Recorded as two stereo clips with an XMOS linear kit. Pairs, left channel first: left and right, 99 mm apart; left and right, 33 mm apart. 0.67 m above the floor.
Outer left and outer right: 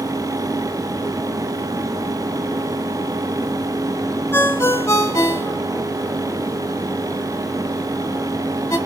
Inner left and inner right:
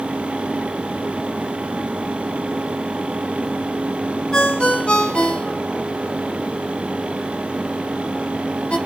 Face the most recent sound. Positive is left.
turn(degrees=30)  # may be behind; listen again after turning